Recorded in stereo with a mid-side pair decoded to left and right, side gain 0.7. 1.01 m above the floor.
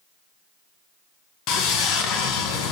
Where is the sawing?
60° left, 2.5 m.